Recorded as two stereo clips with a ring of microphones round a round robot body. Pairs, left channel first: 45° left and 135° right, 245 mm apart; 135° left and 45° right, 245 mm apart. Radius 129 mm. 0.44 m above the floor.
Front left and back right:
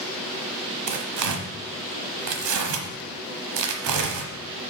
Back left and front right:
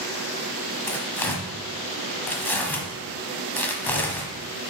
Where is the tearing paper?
140° right, 1.0 m.